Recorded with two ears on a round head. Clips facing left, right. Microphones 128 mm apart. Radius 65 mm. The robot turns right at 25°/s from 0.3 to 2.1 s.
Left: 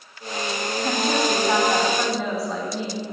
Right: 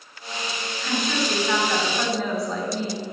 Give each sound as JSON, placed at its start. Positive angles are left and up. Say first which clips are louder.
{"t": 0.8, "sound": "a woman speaking", "louder": "left 3 dB", "azimuth_deg": 145, "distance_m": 3.5}